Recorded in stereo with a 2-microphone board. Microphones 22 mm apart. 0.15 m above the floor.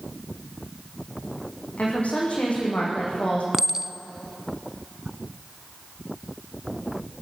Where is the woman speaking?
75° left (ahead or behind), 8.5 m; by 3.4 s 70° left (ahead or behind), 9.5 m.